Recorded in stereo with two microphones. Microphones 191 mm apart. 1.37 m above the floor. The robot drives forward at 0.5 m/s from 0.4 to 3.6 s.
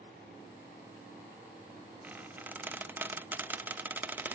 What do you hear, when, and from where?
2.0 s a squeak: 10° right (ahead or behind), 0.8 m